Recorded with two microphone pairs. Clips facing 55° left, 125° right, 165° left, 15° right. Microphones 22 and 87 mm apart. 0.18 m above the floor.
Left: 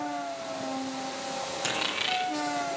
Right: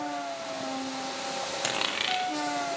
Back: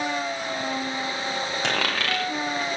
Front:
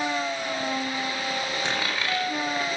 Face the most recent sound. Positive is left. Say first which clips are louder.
# even, back 2 dB
turn(degrees=170)